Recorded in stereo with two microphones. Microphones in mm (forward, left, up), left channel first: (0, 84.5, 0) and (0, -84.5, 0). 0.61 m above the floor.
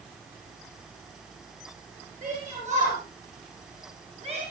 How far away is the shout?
About 9.5 m.